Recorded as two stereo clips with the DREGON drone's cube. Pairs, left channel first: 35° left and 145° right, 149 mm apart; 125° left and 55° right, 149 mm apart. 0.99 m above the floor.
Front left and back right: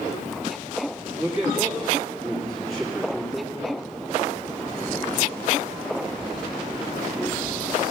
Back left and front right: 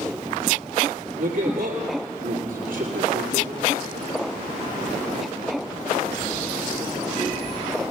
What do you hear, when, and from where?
1.2 s a man speaking: 55° right, 2.0 m